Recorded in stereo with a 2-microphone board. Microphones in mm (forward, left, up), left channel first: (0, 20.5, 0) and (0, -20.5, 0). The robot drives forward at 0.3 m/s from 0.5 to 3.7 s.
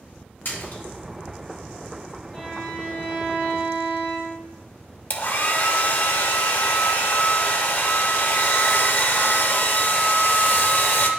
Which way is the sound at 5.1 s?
55° left (ahead or behind).